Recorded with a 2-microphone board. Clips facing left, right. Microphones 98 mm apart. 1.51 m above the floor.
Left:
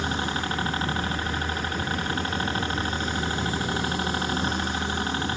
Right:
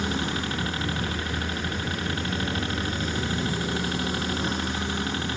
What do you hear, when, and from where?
0.0 s a helicopter: 35° left (ahead or behind)